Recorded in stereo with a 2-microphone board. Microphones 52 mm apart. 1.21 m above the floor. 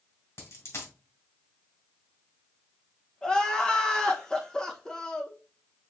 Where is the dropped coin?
70° left (ahead or behind), 2.5 m.